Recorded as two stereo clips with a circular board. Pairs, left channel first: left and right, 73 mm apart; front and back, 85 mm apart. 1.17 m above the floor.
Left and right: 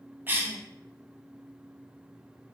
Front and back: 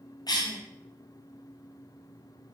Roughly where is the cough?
Ahead right.